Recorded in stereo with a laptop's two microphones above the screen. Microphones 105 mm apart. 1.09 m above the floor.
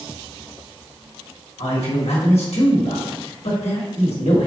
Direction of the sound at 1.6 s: 80° left.